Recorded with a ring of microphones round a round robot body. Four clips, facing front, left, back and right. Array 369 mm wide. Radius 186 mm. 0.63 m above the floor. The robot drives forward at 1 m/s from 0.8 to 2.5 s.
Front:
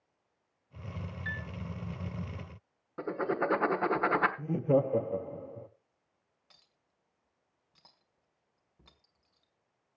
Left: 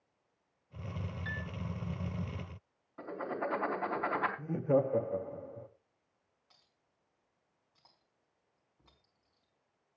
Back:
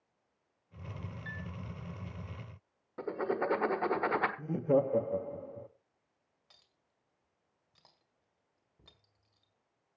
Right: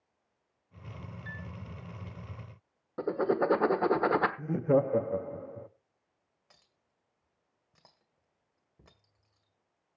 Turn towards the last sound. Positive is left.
turn(degrees=-80)